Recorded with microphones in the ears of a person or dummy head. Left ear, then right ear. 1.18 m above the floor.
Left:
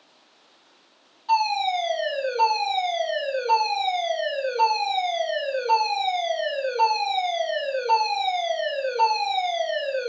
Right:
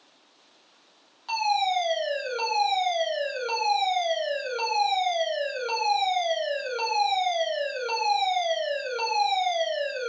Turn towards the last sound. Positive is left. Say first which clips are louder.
# left 3 dB
turn(degrees=-30)  # may be behind; listen again after turning